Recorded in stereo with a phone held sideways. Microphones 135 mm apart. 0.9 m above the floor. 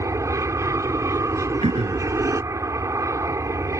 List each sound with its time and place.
0.0 s an aircraft: 20° right (ahead or behind)
1.6 s throat clearing: 55° right (ahead or behind)